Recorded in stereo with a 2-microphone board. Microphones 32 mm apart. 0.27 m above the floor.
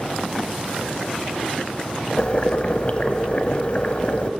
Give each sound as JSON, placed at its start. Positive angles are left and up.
{"t": 2.2, "sound": "boiling", "side_deg": 35, "distance_m": 0.8}